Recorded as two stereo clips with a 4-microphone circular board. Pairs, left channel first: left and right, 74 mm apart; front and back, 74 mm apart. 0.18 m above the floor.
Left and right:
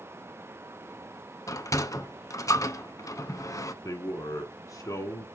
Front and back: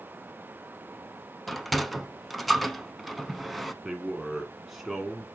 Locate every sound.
1.5 s a sliding door: 90° left, 0.8 m
3.8 s a man speaking: 95° left, 1.7 m